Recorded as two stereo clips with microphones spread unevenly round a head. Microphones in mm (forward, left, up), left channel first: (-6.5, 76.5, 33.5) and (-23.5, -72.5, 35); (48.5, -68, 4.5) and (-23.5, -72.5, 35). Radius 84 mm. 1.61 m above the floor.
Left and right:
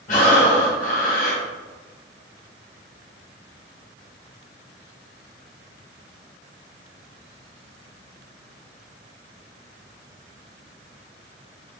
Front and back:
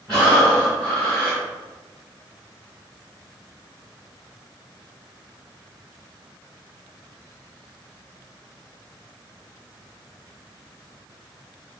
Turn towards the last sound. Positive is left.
turn(degrees=110)